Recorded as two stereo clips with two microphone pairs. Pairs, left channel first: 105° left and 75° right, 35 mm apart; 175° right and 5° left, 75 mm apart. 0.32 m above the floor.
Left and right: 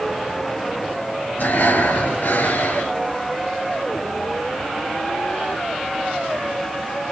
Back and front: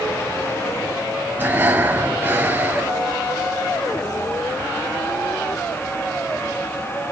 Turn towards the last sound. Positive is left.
turn(degrees=70)